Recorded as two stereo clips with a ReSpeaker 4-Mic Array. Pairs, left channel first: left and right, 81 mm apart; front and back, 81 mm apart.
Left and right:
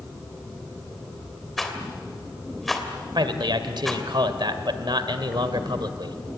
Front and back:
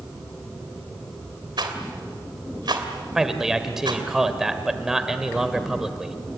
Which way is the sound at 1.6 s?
Straight behind.